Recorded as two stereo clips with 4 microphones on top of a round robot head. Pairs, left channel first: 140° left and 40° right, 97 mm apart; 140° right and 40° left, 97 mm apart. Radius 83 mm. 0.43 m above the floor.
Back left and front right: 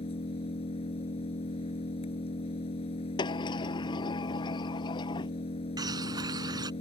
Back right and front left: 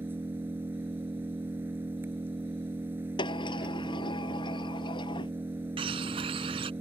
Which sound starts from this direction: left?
An engine running, at 0.0 s.